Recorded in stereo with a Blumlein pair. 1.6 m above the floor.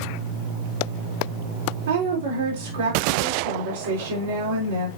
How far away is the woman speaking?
About 5 m.